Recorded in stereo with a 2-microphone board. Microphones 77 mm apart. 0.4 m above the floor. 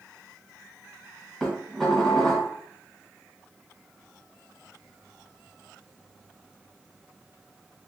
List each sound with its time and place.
1.4 s dishes clattering: 5° left (ahead or behind), 1.7 m